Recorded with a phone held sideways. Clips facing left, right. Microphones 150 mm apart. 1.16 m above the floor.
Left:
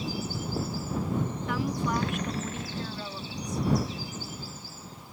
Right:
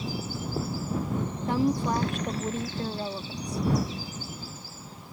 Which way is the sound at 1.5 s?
35° right (ahead or behind).